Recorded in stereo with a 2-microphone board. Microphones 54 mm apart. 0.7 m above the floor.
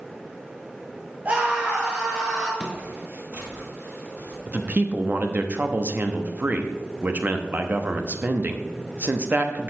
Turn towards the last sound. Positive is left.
turn(degrees=-30)  # may be behind; listen again after turning